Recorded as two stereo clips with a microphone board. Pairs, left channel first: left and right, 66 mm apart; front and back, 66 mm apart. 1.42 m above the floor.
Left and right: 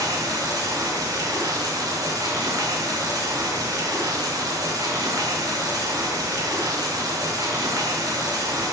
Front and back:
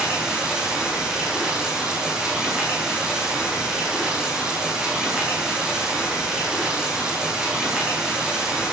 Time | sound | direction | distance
0.0 | running water | 100° right | 4.5 m